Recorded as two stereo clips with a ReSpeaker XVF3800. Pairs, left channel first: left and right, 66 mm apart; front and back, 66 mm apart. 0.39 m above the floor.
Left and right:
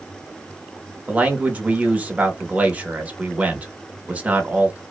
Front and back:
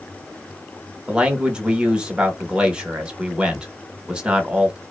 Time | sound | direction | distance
1.1 | a man speaking | 120° right | 0.9 m